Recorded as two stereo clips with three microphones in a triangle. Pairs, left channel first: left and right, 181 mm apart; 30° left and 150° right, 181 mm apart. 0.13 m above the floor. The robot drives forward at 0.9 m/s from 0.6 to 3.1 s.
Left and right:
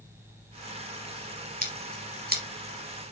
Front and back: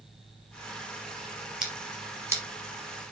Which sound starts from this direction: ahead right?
Scissors, at 1.6 s.